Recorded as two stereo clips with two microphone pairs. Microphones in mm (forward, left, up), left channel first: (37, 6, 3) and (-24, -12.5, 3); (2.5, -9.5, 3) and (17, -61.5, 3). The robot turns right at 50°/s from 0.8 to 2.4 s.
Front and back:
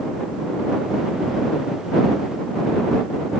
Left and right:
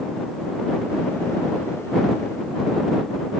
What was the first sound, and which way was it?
Only background noise.